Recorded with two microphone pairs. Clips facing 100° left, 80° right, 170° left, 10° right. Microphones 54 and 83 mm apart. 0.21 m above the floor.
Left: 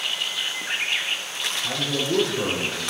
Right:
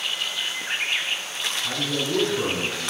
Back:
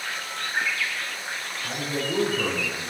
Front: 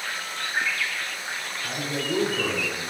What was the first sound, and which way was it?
A man speaking, 90° left.